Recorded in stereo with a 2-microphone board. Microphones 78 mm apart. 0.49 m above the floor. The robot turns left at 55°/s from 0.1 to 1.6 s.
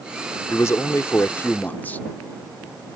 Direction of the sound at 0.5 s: 100° left.